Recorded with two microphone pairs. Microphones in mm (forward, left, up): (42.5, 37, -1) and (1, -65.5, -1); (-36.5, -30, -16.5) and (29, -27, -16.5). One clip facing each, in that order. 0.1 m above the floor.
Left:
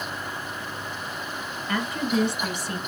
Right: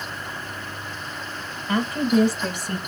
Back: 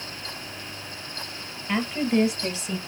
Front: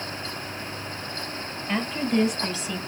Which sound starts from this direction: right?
A woman speaking, at 1.7 s.